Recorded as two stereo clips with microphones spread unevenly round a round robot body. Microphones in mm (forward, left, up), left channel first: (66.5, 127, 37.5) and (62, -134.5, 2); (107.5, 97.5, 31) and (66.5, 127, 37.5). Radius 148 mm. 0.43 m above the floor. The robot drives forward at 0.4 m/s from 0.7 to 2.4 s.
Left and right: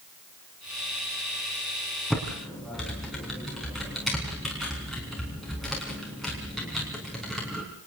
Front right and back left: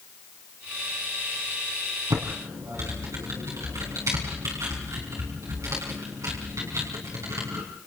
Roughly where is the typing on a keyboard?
Behind.